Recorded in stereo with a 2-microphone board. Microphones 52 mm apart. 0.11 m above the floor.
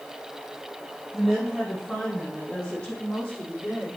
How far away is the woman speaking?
About 3.5 m.